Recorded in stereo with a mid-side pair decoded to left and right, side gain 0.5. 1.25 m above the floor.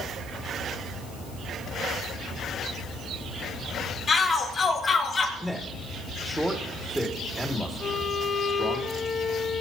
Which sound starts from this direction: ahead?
A man speaking, at 5.4 s.